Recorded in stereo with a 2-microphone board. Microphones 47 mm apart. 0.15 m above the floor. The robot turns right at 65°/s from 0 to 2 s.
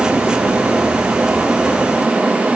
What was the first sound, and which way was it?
Only background noise.